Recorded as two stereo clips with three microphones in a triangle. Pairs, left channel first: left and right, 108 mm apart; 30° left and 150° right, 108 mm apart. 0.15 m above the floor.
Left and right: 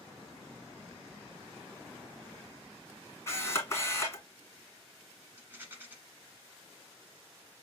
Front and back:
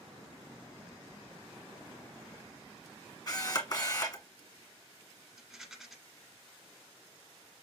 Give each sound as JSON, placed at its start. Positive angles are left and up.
{"t": 3.3, "sound": "a camera shutter", "azimuth_deg": 40, "distance_m": 1.9}
{"t": 5.4, "sound": "a rattle", "azimuth_deg": -70, "distance_m": 1.3}